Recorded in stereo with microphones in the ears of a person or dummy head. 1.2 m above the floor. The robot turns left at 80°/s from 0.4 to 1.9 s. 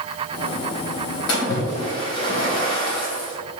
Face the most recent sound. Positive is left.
turn(degrees=25)